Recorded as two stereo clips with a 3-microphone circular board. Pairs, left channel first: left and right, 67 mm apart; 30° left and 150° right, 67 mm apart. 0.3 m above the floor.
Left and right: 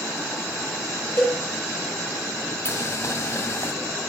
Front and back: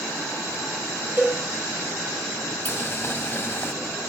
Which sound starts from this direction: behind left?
A cowbell, at 1.2 s.